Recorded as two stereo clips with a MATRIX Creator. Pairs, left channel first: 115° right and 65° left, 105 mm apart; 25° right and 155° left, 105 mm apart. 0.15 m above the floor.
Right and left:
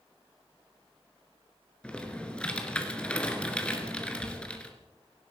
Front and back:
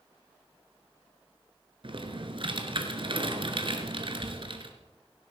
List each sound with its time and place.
1.8 s typing on a keyboard: 170° left, 2 m